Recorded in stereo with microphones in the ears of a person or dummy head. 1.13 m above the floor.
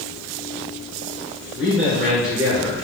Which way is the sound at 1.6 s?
40° right (ahead or behind).